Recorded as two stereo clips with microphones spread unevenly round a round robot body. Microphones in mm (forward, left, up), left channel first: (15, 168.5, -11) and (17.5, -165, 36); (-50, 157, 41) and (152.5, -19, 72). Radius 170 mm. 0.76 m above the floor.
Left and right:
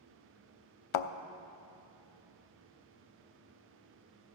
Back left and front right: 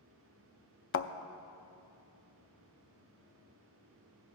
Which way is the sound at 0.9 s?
90° left.